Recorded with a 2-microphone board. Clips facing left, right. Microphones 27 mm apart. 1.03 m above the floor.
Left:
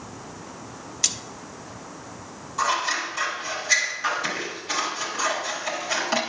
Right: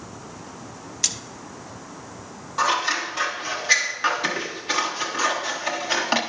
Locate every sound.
1.0 s a splash: centre (ahead or behind), 0.5 m
2.6 s scissors: 30° right (ahead or behind), 1.3 m